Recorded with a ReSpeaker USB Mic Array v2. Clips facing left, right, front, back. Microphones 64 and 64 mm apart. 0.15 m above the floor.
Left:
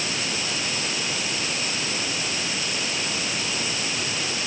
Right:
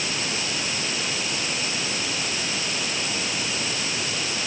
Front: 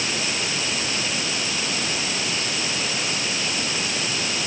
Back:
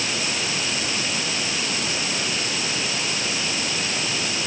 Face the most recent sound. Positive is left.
No sound to turn to.